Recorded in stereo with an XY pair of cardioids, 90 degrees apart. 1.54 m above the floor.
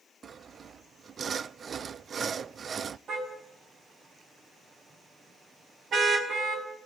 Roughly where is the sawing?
Ahead right.